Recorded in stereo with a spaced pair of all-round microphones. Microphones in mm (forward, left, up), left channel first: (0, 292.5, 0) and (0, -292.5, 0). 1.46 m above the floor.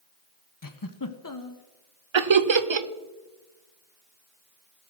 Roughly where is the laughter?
Right.